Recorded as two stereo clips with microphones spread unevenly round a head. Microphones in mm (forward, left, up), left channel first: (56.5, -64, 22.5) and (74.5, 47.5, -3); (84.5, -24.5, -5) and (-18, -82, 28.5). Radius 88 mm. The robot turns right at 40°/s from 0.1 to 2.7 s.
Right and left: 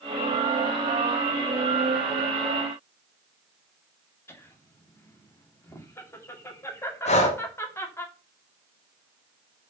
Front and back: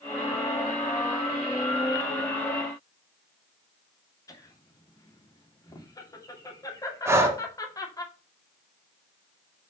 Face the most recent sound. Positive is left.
turn(degrees=-85)